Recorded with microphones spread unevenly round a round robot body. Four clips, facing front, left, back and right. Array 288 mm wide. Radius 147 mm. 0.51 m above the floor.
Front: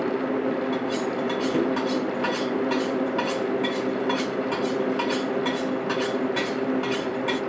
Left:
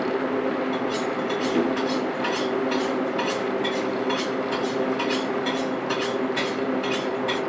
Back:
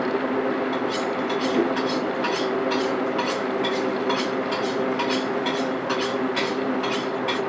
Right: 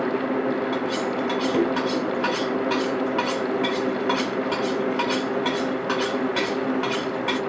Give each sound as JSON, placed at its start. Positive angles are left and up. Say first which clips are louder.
{"t": 0.7, "sound": "cutlery clinking", "louder": "right 1 dB, back 1 dB", "azimuth_deg": -70, "distance_m": 1.5}